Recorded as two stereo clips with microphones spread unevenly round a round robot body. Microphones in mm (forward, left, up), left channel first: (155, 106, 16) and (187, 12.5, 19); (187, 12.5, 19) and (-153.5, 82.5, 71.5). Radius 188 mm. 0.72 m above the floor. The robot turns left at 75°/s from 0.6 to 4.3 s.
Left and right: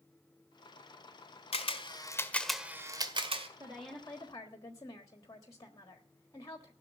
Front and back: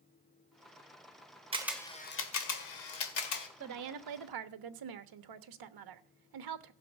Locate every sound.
1.5 s a camera shutter: 95° left, 1.9 m; by 3.5 s 55° right, 1.9 m
3.6 s a woman speaking: 145° right, 1.2 m; by 6.7 s 165° left, 1.2 m